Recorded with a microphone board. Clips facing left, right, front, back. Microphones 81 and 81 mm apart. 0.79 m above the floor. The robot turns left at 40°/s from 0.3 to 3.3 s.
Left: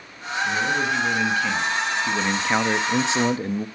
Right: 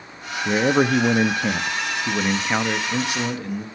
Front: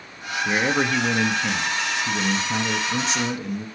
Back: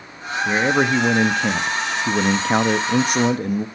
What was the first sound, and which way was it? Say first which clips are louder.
A man speaking: right 6 dB, back 4 dB; 100° right.